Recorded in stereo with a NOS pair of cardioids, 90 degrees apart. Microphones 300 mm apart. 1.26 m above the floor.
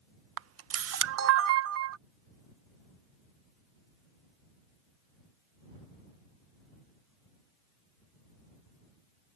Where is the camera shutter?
55° right.